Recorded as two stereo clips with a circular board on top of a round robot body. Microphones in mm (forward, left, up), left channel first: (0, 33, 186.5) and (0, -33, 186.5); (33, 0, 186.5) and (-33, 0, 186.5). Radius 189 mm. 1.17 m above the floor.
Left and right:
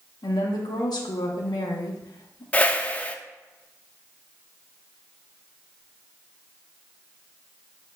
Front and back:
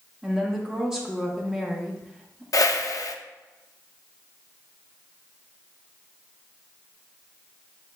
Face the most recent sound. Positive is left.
turn(degrees=25)